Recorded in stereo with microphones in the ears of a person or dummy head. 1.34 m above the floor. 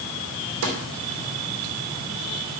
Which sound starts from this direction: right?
A snare drum, at 0.6 s.